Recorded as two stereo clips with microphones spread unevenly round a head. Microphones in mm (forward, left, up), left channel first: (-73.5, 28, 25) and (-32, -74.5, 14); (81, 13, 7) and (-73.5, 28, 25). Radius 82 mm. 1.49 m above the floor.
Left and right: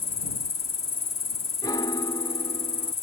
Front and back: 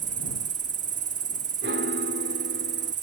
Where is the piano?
165° left.